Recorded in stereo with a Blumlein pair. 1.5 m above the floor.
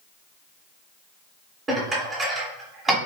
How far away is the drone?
No drone in this recording.